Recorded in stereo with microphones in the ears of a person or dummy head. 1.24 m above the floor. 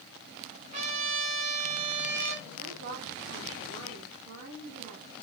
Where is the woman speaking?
60° right (ahead or behind), 3.5 m.